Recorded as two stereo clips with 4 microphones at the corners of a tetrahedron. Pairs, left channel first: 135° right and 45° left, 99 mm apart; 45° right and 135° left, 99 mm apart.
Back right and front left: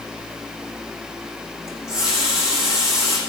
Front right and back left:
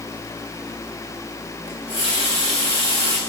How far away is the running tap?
About 5.5 m.